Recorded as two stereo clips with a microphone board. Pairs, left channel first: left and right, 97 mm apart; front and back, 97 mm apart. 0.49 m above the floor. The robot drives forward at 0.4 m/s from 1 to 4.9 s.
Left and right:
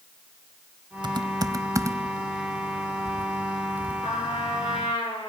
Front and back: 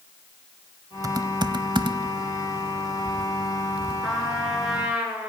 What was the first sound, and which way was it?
Typing on a keyboard, 130° right.